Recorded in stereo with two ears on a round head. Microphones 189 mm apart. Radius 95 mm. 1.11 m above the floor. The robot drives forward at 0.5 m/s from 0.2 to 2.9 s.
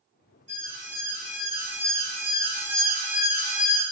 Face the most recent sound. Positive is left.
turn(degrees=35)  # may be behind; listen again after turning